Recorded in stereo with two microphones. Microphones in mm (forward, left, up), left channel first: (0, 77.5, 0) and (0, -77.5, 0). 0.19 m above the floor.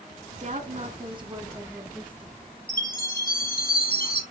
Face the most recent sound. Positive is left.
turn(degrees=70)  # may be behind; listen again after turning